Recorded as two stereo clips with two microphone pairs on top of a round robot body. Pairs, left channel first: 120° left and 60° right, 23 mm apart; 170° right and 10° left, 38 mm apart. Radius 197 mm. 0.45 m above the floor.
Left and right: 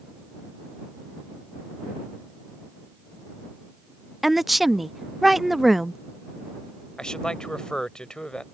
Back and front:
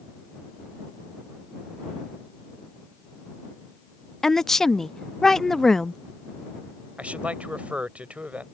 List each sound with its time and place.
4.2 s a woman speaking: 150° right
7.0 s a man speaking: 65° left